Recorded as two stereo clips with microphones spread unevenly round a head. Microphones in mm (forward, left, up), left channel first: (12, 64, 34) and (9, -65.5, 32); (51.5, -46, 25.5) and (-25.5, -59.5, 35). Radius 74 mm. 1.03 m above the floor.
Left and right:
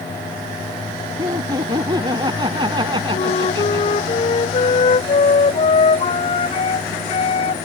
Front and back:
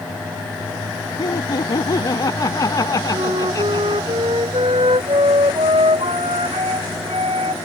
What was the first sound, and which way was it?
Laughter, 30° right.